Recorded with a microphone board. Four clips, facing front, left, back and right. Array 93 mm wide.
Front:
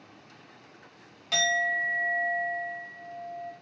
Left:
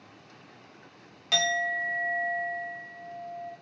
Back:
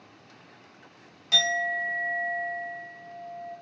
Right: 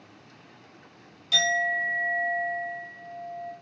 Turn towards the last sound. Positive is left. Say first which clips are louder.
# right 2 dB, front 1 dB
turn(degrees=80)